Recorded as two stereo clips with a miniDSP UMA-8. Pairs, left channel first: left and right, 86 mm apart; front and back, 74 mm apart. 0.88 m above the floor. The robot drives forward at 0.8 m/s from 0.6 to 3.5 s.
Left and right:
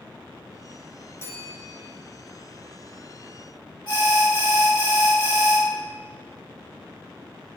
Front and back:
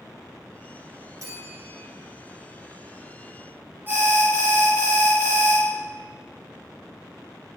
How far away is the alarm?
About 2.5 m.